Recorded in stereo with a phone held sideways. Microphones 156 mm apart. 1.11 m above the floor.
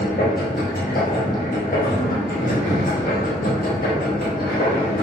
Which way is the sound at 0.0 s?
75° left (ahead or behind).